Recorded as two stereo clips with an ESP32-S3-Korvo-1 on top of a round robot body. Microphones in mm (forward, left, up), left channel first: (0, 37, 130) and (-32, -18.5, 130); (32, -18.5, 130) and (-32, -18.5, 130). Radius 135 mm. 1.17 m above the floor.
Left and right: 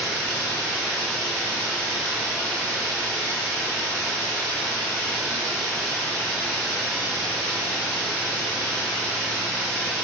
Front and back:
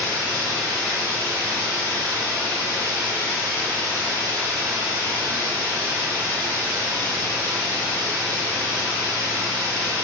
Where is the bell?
No bell in this recording.